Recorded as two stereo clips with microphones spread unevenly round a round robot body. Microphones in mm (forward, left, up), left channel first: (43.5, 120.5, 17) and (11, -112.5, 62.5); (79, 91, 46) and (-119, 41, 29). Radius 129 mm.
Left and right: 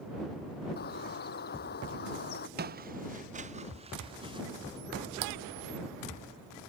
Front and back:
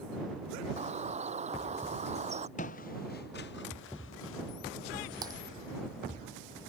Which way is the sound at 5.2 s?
90° right.